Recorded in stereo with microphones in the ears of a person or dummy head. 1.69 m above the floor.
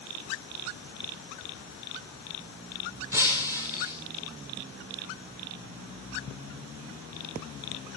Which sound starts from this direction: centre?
Breaking glass, at 3.1 s.